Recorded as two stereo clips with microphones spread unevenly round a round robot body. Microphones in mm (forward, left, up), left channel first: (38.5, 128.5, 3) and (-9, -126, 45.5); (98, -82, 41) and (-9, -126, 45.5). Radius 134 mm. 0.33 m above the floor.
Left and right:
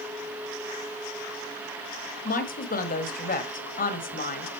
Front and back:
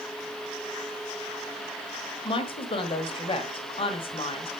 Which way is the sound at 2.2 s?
40° left.